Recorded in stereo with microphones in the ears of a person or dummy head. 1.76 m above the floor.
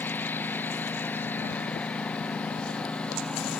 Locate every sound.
0.0 s a lawn mower: 5° left (ahead or behind)